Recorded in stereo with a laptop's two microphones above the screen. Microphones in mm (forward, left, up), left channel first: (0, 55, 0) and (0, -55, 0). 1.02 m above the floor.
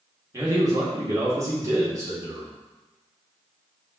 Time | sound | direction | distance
0.3 | a man speaking | 25° right (ahead or behind) | 1.7 m